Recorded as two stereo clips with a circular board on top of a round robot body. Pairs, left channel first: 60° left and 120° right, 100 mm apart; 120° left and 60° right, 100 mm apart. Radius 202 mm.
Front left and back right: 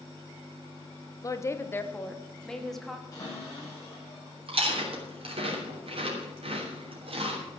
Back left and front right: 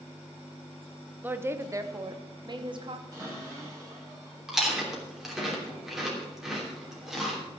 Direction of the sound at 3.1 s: Straight ahead.